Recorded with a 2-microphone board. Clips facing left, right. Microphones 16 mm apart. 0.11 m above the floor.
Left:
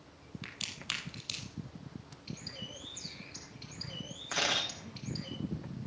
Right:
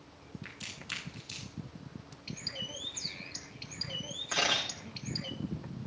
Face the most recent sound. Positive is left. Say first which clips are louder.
# right 1 dB
turn(degrees=15)  # may be behind; listen again after turning